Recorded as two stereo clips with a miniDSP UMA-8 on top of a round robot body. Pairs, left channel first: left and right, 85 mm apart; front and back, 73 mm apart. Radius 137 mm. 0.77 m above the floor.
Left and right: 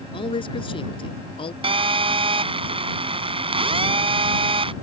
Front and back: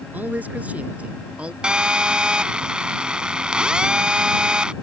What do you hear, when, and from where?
0.1 s a man speaking: 110° left; by 1.5 s 105° left
1.6 s a phone buzzing: 100° right